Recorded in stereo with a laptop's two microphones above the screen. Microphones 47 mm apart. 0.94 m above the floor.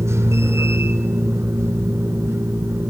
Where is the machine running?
70° right (ahead or behind), 2.5 m.